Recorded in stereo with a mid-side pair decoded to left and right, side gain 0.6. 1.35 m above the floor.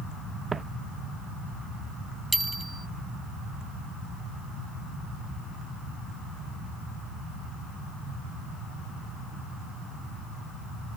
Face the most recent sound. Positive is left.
turn(degrees=-10)